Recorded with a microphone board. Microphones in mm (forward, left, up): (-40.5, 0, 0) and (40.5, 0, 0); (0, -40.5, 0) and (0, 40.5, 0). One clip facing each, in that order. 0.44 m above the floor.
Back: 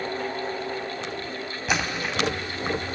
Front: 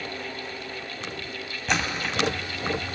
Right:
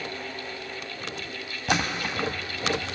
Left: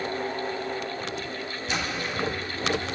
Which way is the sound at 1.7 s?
95° right.